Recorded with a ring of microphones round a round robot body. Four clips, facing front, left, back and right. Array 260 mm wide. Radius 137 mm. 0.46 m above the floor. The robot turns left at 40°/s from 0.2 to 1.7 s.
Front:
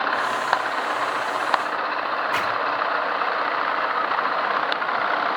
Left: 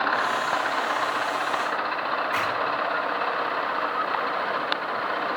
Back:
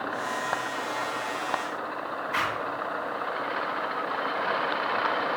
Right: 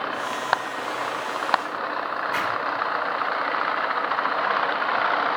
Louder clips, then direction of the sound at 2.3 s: Even, front 1 dB; 5° left.